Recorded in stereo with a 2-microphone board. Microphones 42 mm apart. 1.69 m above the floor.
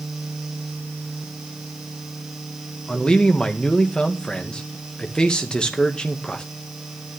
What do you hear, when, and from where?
2.9 s a man speaking: 20° left (ahead or behind), 2 m